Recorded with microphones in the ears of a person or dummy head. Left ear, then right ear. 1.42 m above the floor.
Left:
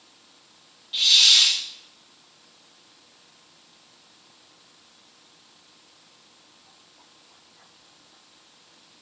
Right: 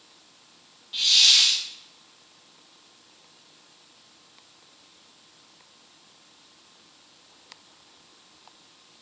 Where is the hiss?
10° left (ahead or behind), 1.2 m.